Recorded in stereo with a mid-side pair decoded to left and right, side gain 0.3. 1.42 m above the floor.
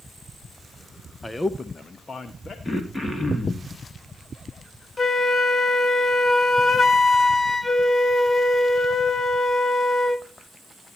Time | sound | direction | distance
1.2 | a man speaking | 20° left | 0.9 m
2.6 | throat clearing | 20° left | 3 m
5.0 | a flute | 40° left | 1.2 m